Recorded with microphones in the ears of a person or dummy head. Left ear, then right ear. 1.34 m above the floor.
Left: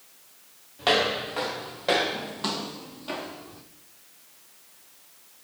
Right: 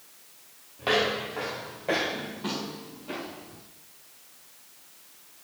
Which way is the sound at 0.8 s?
30° left (ahead or behind).